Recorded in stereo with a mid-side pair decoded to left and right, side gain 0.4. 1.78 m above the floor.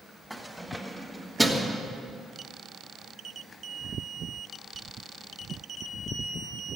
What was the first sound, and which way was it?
Keys jangling, 5° left.